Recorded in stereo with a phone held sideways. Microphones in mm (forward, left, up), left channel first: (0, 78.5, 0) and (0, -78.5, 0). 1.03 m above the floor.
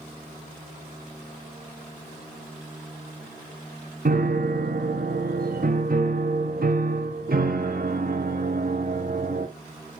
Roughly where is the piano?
Right.